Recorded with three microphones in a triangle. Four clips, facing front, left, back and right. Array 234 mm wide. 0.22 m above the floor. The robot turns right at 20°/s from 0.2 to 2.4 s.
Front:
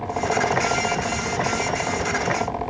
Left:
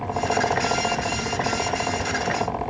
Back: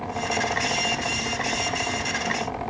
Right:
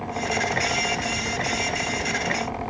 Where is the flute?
I don't hear a flute.